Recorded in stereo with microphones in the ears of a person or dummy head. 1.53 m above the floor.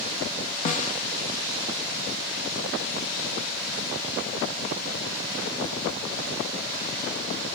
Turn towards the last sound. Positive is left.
turn(degrees=45)  # may be behind; listen again after turning